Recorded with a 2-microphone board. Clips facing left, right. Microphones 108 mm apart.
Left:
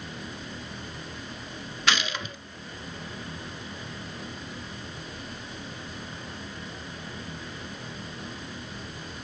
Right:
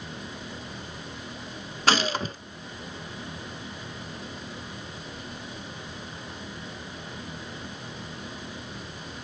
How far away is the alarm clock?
No alarm clock in this recording.